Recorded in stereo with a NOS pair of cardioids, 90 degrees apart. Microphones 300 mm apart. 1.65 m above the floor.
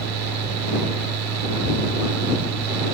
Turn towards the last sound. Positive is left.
turn(degrees=-70)